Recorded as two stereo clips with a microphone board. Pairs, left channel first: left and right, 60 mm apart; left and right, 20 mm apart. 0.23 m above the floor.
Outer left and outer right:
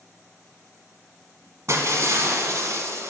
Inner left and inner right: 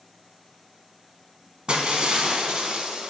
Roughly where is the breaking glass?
Right.